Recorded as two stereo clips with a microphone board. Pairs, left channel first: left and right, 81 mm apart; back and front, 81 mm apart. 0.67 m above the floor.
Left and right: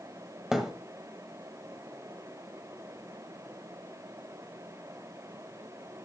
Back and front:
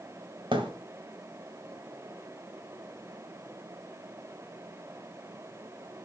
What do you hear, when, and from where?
0.5 s a thud: 5° right, 1.5 m